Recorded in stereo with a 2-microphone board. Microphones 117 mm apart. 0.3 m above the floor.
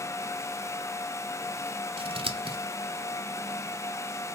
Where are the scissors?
50° right (ahead or behind), 0.5 m.